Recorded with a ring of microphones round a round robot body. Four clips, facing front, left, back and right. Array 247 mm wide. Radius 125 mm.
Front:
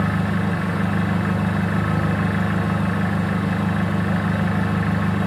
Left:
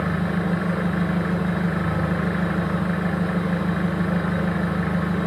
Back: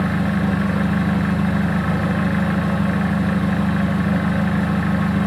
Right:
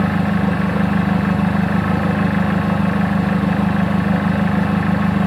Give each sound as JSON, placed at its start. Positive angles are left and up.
{"t": 0.0, "sound": "an engine running", "azimuth_deg": -95, "distance_m": 1.6}